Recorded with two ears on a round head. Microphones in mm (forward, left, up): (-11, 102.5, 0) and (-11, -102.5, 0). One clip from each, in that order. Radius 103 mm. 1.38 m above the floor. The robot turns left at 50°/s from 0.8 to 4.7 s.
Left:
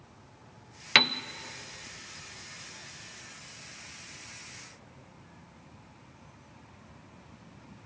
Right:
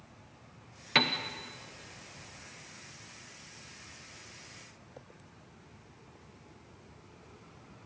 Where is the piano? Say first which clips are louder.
Left 5 dB; 45° left (ahead or behind), 0.8 m; by 1.2 s 55° left (ahead or behind), 0.8 m.